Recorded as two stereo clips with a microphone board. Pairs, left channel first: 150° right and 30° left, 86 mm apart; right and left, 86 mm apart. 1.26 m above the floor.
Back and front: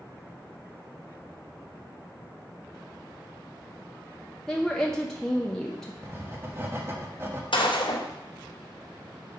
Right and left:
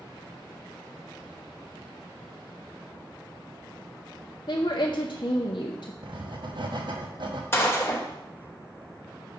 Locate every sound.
4.5 s a woman speaking: 65° right, 0.6 m
6.0 s writing: 90° left, 1.0 m
7.5 s a gunshot: 150° right, 1.0 m